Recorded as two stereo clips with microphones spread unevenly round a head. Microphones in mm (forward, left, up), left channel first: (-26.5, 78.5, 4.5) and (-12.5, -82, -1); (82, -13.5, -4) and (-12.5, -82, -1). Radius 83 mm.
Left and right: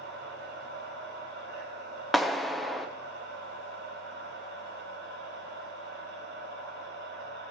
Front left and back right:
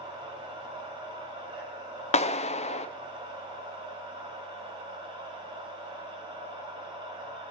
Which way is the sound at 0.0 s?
100° right.